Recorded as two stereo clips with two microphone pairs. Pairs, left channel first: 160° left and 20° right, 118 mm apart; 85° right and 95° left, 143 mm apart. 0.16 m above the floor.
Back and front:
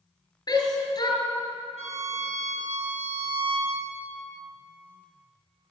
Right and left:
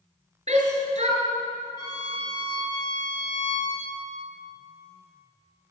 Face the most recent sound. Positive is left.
turn(degrees=-30)